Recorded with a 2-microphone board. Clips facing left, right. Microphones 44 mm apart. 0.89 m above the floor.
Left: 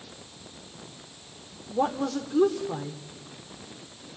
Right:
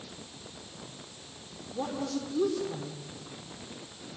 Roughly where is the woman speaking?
Left.